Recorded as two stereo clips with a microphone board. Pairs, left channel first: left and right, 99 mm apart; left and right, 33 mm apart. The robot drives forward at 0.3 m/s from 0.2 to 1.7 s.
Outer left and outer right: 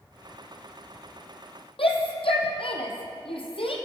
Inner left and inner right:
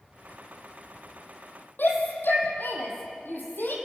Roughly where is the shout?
Left.